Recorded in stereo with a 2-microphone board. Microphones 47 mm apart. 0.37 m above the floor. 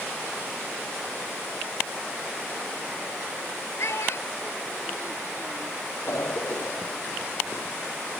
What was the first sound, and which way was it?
A child speaking, 70° left (ahead or behind).